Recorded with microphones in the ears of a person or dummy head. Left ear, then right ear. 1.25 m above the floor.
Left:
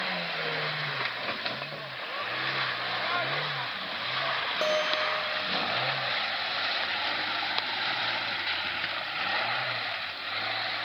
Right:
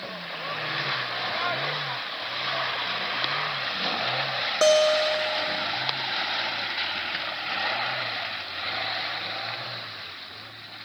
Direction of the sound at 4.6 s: 40° right (ahead or behind).